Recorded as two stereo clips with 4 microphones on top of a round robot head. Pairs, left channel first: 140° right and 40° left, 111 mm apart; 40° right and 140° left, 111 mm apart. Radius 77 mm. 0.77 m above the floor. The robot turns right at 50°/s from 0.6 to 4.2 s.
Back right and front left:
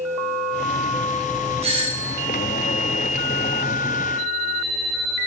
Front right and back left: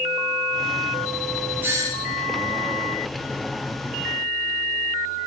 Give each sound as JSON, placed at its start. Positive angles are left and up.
{"t": 1.6, "sound": "a doorbell", "azimuth_deg": 70, "distance_m": 5.5}